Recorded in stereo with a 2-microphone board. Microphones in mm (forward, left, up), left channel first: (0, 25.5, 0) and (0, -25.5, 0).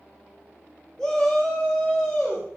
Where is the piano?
No piano in this recording.